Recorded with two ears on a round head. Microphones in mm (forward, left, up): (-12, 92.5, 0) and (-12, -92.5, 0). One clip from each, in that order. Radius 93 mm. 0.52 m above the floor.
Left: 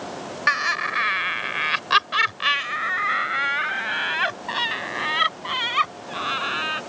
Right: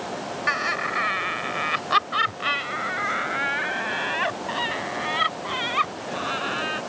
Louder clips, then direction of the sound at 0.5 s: Left 3 dB; 35° left (ahead or behind).